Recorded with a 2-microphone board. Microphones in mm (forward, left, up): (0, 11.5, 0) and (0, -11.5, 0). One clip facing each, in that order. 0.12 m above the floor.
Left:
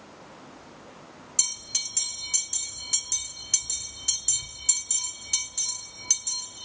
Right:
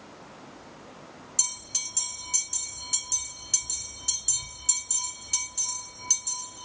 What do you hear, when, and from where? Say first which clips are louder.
1.4 s a bell: left 2 dB; 10° left (ahead or behind), 1.7 m